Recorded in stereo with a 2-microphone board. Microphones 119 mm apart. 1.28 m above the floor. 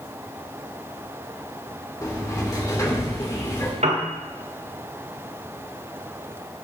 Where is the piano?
75° right (ahead or behind), 2 m.